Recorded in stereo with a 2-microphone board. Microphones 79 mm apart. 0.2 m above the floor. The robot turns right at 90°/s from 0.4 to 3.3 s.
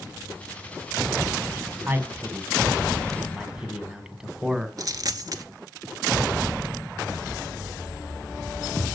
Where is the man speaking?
145° right, 1.2 m; by 4.7 s 15° right, 1.2 m.